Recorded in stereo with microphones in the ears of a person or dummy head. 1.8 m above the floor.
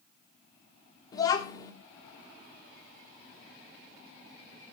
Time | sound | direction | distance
1.1 | a child speaking | 25° left (ahead or behind) | 1.4 m